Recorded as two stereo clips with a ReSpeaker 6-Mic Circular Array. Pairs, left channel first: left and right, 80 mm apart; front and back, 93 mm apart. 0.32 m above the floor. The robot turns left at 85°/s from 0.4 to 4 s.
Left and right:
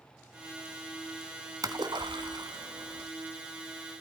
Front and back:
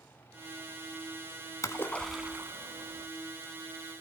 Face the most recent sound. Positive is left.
turn(degrees=110)